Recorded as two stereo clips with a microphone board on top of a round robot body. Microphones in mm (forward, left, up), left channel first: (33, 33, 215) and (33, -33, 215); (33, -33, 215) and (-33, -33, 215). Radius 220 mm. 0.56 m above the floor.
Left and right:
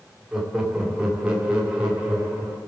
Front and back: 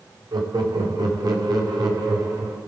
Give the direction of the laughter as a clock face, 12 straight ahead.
6 o'clock.